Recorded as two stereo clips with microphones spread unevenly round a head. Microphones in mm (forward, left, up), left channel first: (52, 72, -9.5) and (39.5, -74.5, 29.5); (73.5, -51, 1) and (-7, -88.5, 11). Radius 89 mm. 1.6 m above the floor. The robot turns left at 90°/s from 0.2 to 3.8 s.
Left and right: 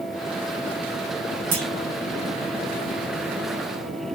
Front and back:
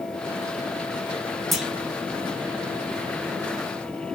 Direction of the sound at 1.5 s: 70° right.